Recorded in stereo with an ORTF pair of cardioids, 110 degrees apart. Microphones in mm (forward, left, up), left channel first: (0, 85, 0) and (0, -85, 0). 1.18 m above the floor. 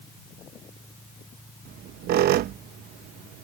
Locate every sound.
1.6 s a squeak: 70° right